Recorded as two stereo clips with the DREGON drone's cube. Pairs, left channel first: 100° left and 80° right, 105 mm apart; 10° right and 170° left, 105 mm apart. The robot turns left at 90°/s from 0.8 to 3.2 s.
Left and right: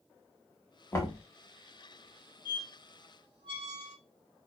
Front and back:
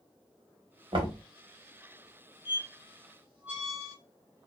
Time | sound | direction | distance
0.9 | knocking | 160° left | 0.9 m
2.5 | a squeak | 45° right | 1.3 m